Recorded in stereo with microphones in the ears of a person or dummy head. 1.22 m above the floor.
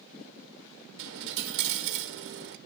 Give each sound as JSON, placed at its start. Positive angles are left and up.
{"t": 1.0, "sound": "a dropped coin", "side_deg": -65, "distance_m": 1.5}